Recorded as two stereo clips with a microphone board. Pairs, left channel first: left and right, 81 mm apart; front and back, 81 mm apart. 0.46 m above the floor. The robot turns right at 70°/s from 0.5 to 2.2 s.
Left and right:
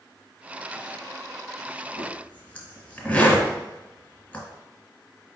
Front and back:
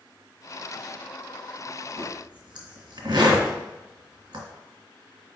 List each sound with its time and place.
2.0 s a zipper: 145° left, 1.4 m; by 4.5 s 160° left, 1.4 m